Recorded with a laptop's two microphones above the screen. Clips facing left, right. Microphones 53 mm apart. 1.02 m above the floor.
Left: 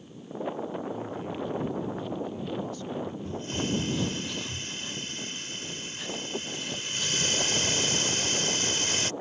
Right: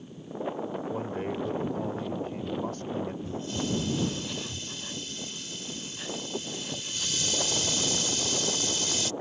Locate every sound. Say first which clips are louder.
0.9 s a man speaking: right 2 dB; 55° right (ahead or behind)
3.2 s a hiss: even; 50° left (ahead or behind)